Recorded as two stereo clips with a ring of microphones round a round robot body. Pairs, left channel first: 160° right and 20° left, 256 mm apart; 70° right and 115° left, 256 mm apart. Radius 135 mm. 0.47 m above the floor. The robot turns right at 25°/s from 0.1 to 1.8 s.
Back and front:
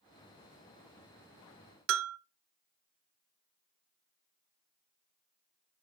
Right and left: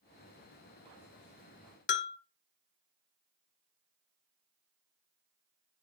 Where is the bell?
20° right, 0.6 m.